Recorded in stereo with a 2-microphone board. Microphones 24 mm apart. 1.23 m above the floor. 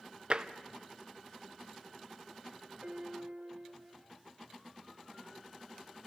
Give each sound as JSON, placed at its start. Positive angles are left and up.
{"t": 0.3, "sound": "tapping", "side_deg": -45, "distance_m": 0.7}
{"t": 2.8, "sound": "a piano", "side_deg": -65, "distance_m": 2.0}